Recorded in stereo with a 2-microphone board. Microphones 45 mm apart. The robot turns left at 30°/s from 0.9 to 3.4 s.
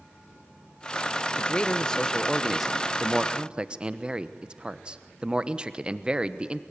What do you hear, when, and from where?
1.4 s a man speaking: 35° left, 1.0 m; by 6.6 s 25° right, 1.0 m